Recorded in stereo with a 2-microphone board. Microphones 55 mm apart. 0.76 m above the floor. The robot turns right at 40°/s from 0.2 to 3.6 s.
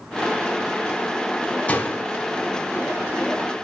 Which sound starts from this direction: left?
A door slam, at 1.7 s.